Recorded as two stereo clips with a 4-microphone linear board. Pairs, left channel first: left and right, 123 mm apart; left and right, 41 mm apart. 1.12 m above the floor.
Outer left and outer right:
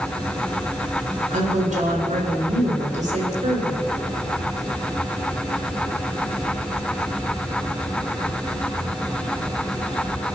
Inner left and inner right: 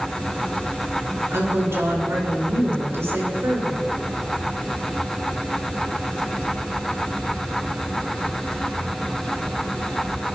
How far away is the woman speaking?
About 4 m.